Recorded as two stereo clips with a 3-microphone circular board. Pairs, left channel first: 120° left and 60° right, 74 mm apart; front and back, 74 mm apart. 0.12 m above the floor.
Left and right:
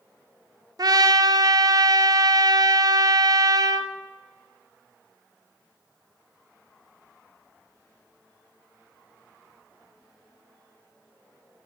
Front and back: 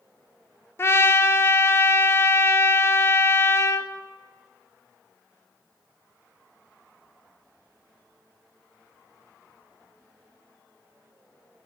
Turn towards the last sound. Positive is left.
turn(degrees=-50)